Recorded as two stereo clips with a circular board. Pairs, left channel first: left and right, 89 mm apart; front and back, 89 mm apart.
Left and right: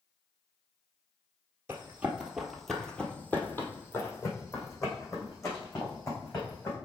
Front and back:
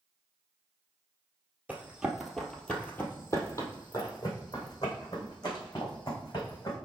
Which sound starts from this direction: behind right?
Running footsteps, at 1.7 s.